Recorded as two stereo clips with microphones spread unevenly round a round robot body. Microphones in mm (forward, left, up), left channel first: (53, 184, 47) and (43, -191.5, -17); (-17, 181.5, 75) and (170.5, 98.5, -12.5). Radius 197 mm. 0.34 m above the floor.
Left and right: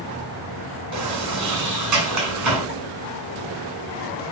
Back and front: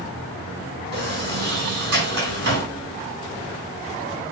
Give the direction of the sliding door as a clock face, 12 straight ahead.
2 o'clock.